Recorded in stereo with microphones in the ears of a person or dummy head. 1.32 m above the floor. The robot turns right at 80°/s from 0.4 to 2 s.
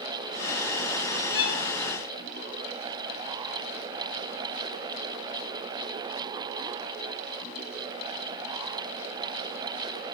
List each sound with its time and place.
1.3 s a violin: 50° left (ahead or behind), 0.8 m